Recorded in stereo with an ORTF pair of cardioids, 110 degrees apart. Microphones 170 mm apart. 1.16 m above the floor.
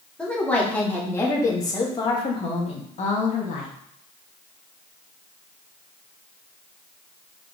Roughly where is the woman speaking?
Ahead.